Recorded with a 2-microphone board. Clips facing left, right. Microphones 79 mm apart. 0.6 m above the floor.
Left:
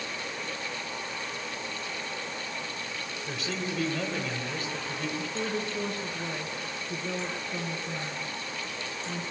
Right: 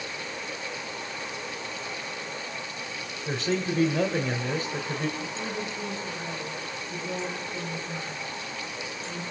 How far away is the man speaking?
About 3 m.